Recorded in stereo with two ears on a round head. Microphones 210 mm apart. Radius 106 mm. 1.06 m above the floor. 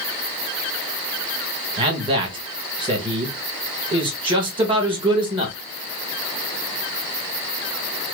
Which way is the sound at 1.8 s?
20° right (ahead or behind).